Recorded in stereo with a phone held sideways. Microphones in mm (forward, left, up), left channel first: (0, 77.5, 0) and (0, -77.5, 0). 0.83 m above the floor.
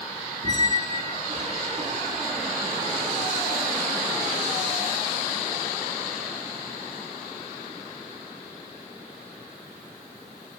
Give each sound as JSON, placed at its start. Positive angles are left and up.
{"t": 0.4, "sound": "a squeak", "side_deg": -45, "distance_m": 1.2}